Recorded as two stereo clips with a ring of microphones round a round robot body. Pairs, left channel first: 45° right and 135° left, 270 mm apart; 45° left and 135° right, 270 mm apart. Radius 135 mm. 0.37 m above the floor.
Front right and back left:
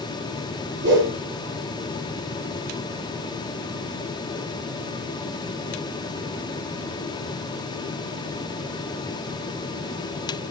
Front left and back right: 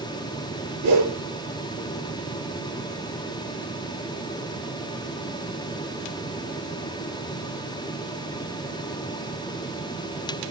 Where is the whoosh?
170° right, 5.5 m.